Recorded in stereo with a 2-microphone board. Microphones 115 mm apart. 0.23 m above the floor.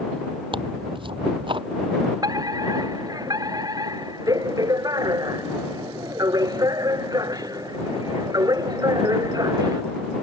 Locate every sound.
0.5 s tearing paper: 50° right (ahead or behind)
2.2 s a fire alarm: 35° right (ahead or behind)